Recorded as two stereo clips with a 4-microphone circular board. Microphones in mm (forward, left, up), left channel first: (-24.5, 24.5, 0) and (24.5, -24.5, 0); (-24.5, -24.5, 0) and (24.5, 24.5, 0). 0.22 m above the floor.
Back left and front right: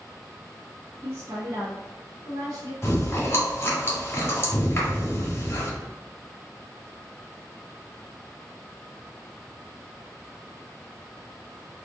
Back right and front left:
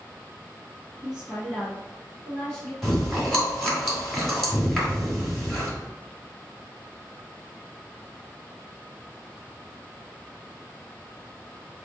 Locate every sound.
1.0 s a woman speaking: 25° right, 1.2 m; by 2.7 s 50° right, 2.0 m
2.8 s chewing: 140° left, 1.7 m